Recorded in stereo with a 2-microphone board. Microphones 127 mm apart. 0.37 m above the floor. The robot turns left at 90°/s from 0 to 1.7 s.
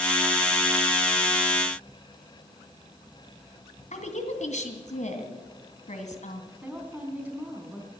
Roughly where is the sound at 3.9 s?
Left.